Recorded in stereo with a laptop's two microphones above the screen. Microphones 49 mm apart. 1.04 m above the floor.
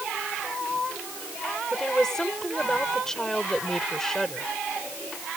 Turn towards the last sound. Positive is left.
turn(degrees=10)  # may be behind; listen again after turning